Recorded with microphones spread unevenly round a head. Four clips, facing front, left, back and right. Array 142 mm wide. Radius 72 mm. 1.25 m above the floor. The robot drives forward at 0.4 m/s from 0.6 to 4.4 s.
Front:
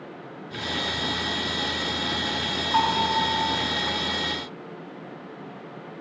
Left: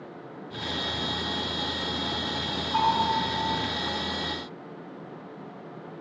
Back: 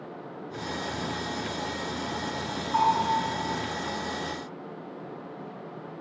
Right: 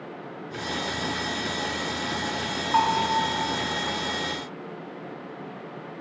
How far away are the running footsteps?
No running footsteps in this recording.